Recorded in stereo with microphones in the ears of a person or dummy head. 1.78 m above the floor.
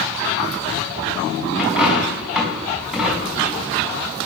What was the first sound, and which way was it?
A dropped coin, centre (ahead or behind).